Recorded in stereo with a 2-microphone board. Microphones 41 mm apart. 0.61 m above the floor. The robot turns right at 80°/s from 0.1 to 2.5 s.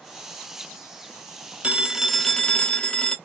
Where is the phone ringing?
40° right, 0.6 m; by 3.2 s 30° left, 0.6 m.